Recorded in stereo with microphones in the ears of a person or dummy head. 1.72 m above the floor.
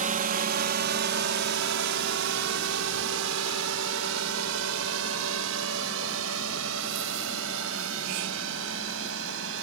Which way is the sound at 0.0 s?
50° right (ahead or behind).